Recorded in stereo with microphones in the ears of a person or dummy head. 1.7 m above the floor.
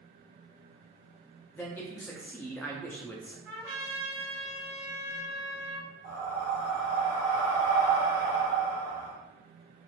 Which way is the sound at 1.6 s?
10° left (ahead or behind).